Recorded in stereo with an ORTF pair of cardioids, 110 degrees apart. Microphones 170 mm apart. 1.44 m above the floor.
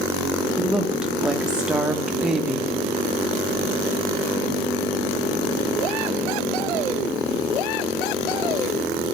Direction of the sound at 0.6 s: 5° right.